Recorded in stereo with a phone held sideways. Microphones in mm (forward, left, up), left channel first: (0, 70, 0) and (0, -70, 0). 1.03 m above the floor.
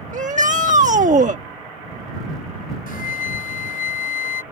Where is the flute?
85° left.